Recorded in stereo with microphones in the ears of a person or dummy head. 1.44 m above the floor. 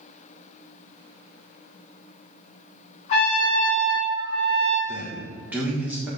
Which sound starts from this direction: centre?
A man speaking, at 4.9 s.